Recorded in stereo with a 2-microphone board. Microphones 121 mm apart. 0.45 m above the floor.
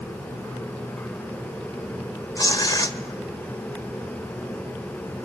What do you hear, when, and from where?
2.4 s tearing paper: 35° left (ahead or behind), 1.4 m